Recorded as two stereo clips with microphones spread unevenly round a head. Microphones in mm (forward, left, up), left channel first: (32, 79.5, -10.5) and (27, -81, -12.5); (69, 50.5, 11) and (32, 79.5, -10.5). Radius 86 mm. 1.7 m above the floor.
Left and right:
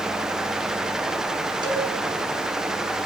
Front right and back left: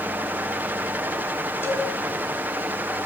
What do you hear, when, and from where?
1.6 s a cowbell: 30° right, 6 m